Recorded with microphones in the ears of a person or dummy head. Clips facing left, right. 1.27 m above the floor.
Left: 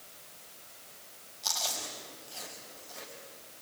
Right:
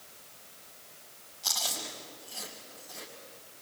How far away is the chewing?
About 3.5 m.